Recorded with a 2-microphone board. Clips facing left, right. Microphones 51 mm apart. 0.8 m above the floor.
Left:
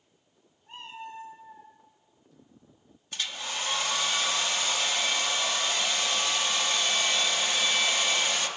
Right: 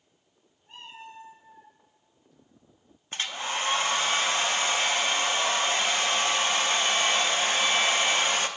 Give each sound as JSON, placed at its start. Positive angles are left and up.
{"t": 0.7, "sound": "a cat meowing", "side_deg": 25, "distance_m": 4.0}
{"t": 3.1, "sound": "a hair dryer", "side_deg": -35, "distance_m": 0.5}